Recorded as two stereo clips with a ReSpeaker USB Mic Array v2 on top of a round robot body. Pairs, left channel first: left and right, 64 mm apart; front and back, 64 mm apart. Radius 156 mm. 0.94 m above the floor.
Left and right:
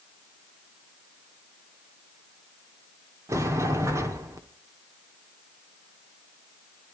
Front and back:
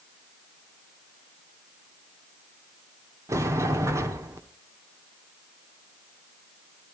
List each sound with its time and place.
3.3 s a sliding door: 135° right, 0.9 m